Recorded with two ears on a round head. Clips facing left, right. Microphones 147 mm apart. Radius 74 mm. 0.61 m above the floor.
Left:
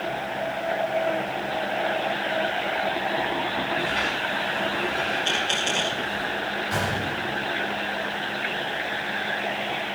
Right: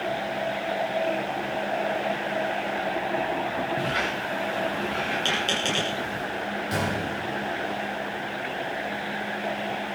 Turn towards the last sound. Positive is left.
turn(degrees=-30)  # may be behind; listen again after turning